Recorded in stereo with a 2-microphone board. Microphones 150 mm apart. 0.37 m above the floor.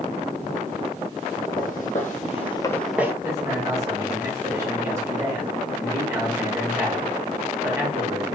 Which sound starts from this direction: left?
Footsteps, at 1.6 s.